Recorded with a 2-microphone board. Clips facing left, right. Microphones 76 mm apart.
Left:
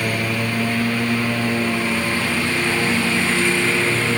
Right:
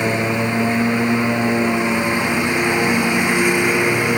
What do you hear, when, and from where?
0.0 s a lawn mower: 20° right (ahead or behind); by 4.2 s 15° right (ahead or behind)